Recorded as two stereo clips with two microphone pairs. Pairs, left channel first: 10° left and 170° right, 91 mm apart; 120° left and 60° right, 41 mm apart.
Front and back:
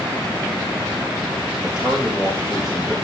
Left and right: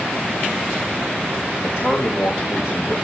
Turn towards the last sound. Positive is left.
turn(degrees=110)